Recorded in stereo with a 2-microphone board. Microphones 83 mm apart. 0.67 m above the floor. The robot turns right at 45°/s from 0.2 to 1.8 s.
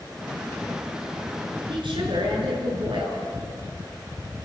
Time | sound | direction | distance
1.7 | a woman speaking | 85° right | 8.5 m